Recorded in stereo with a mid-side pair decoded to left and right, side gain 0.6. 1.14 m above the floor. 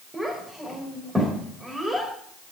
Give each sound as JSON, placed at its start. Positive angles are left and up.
{"t": 0.1, "sound": "a child speaking", "azimuth_deg": -5, "distance_m": 4.5}